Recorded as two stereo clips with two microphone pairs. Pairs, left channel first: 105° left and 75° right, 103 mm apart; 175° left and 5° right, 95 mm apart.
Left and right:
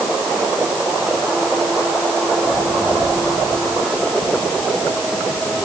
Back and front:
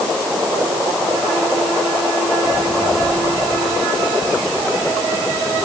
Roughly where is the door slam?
I don't hear a door slam.